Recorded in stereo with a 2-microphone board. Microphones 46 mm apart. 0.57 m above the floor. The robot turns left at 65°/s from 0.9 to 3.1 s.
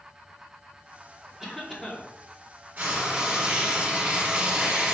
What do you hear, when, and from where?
1.4 s a cough: 165° right, 1.0 m; by 2.1 s 150° left, 1.0 m
2.8 s frying: 40° right (ahead or behind), 1.7 m; by 4.9 s 25° right (ahead or behind), 1.7 m